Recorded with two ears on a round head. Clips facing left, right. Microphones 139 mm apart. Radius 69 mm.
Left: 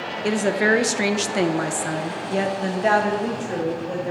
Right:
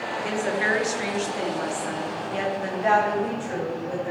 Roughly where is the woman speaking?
Left.